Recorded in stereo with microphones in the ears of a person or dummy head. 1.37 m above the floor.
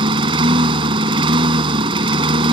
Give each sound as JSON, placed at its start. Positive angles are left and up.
{"t": 0.0, "sound": "a lawn mower", "side_deg": -30}